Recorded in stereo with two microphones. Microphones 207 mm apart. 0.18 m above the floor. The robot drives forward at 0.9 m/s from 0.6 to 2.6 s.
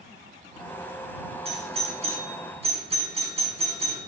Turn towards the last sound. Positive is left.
turn(degrees=-30)  # may be behind; listen again after turning